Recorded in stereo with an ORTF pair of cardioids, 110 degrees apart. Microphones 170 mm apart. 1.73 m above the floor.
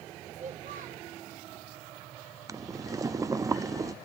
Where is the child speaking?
50° right, 3.5 m.